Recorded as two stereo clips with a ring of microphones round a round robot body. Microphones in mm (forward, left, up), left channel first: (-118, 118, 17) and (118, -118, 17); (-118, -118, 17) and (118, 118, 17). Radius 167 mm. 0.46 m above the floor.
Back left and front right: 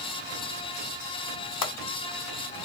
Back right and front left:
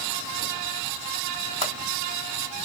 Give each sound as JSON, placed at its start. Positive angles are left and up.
{"t": 1.6, "sound": "a pop", "azimuth_deg": 155, "distance_m": 2.0}